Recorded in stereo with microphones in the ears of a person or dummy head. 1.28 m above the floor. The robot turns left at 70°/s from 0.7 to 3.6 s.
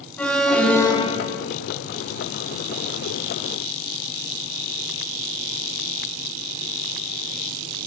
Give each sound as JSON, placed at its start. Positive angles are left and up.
{"t": 0.2, "sound": "an alarm", "azimuth_deg": 175, "distance_m": 0.8}